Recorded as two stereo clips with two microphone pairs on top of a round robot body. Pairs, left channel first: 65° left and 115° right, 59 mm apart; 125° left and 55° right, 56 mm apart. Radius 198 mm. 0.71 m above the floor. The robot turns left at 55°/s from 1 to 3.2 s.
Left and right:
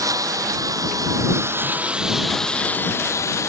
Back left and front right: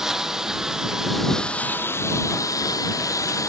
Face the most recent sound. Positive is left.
turn(degrees=105)